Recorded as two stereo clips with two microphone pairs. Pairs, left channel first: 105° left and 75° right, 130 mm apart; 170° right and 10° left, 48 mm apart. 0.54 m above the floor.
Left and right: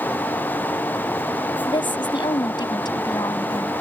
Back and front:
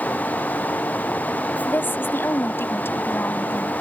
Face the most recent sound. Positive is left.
turn(degrees=160)